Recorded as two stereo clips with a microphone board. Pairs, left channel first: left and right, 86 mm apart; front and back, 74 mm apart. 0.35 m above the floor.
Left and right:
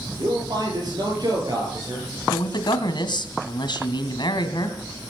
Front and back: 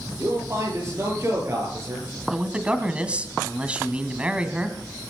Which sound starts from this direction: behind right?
A man speaking, at 0.2 s.